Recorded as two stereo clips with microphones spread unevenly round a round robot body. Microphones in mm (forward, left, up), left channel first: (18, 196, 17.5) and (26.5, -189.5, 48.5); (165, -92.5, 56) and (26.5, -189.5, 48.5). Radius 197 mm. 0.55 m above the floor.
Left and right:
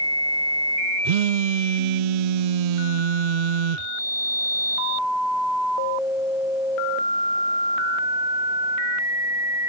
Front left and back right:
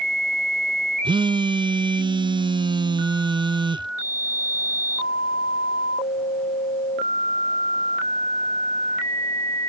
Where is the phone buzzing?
75° right.